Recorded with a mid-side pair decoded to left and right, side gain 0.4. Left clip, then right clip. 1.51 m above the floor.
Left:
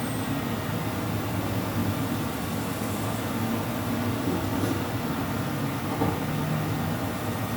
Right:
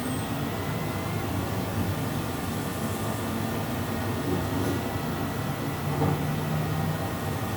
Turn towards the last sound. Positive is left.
turn(degrees=45)